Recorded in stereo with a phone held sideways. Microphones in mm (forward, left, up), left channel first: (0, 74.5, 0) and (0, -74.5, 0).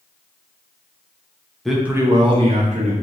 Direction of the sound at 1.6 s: 5° left (ahead or behind).